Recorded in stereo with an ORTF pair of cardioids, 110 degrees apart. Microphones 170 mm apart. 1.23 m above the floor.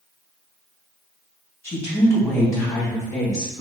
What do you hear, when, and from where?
1.6 s a woman speaking: 15° left, 2 m; by 3.6 s 20° left, 3 m